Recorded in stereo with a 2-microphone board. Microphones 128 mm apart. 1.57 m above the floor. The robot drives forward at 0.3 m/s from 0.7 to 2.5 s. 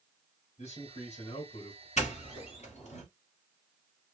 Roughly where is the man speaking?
Left.